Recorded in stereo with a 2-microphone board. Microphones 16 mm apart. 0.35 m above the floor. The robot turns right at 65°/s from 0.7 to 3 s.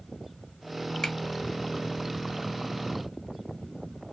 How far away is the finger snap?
About 0.9 m.